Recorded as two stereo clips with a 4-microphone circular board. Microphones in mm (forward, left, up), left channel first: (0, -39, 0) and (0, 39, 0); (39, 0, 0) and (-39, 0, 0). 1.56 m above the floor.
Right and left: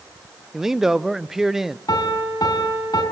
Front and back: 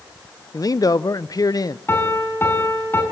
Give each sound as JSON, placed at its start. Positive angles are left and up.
{"t": 0.5, "sound": "a man speaking", "azimuth_deg": 10, "distance_m": 0.6}
{"t": 1.9, "sound": "a piano", "azimuth_deg": -60, "distance_m": 5.0}